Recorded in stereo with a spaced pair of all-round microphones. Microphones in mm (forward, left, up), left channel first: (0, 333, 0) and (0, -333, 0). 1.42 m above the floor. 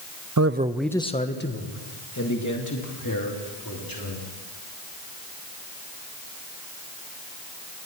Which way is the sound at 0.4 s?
30° right (ahead or behind).